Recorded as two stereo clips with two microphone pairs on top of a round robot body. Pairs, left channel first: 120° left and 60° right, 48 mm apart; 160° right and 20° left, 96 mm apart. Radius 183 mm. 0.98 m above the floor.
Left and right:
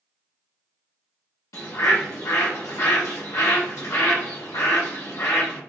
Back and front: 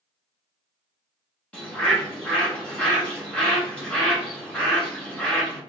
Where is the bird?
125° left, 1.2 m.